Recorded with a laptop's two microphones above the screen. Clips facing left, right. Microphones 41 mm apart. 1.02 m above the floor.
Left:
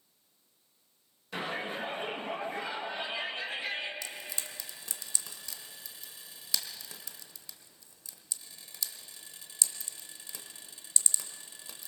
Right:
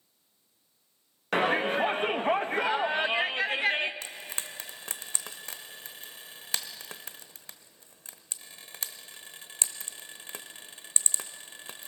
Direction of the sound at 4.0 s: 50° right (ahead or behind).